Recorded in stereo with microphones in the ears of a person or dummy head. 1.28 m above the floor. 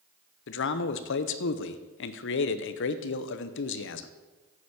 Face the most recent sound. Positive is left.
turn(degrees=60)  # may be behind; listen again after turning